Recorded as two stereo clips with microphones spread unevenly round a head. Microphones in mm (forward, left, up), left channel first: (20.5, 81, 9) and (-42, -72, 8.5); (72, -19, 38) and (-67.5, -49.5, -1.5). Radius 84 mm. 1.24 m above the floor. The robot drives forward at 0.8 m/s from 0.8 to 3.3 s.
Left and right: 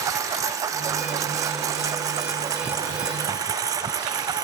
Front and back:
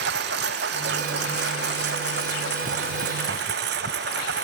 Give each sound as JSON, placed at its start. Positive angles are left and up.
{"t": 0.0, "sound": "a lawn mower", "azimuth_deg": 175}